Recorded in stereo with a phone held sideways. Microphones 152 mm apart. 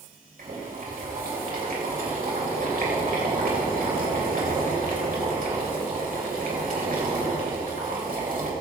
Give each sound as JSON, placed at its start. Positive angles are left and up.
{"t": 0.4, "sound": "boiling", "side_deg": -70, "distance_m": 3.5}